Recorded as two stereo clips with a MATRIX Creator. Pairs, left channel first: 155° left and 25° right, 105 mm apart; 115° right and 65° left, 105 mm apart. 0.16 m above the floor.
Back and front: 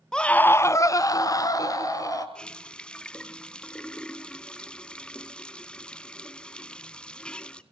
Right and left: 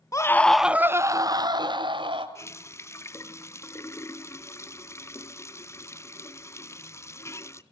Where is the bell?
I don't hear a bell.